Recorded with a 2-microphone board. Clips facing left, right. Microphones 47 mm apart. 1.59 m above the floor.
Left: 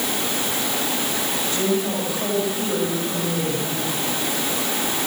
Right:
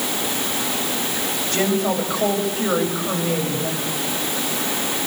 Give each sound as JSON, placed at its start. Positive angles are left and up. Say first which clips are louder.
{"t": 1.5, "sound": "a woman speaking", "louder": "right 3 dB", "side_deg": -55, "distance_m": 8.0}